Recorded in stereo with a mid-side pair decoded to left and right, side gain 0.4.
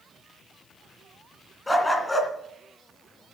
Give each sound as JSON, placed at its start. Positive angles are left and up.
{"t": 1.7, "sound": "a dog barking", "azimuth_deg": 20, "distance_m": 2.5}